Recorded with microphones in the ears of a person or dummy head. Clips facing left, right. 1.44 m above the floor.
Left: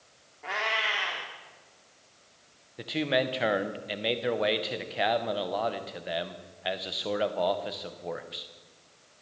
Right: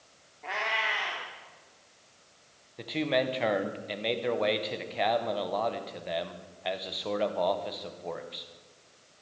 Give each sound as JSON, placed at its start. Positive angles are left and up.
{"t": 0.4, "sound": "a cat meowing", "side_deg": 10, "distance_m": 1.1}
{"t": 2.8, "sound": "a man speaking", "side_deg": 10, "distance_m": 0.7}